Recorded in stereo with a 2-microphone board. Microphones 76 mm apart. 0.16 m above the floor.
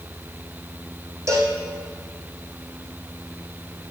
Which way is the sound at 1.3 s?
40° right (ahead or behind).